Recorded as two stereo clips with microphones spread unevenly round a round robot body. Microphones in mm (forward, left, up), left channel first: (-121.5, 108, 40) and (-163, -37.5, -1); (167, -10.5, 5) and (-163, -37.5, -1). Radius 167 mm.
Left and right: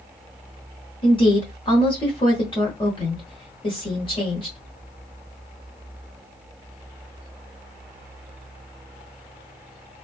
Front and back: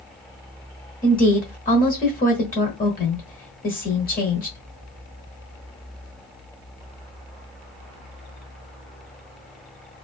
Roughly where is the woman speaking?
Ahead.